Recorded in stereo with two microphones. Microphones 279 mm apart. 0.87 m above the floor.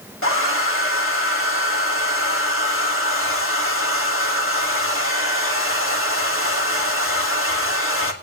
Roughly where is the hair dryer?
Left.